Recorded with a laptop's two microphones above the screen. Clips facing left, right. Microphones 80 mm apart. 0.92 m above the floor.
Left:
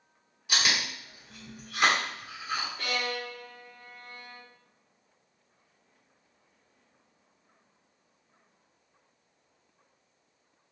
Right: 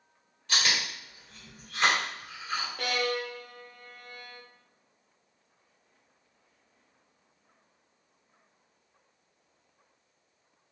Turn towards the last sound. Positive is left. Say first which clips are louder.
# right 3 dB
turn(degrees=-70)  # may be behind; listen again after turning